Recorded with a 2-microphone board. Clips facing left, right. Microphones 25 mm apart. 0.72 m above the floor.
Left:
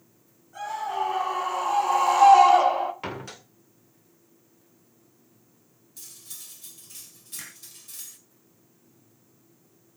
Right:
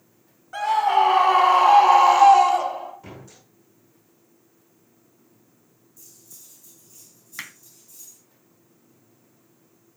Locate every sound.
0.5 s a scream: 75° right (ahead or behind), 2.5 m; by 2.9 s 40° left (ahead or behind), 1.3 m
3.0 s a door slam: 65° left (ahead or behind), 2 m
6.0 s cutlery clinking: 80° left, 1.9 m
7.4 s hammering: 45° right (ahead or behind), 2.5 m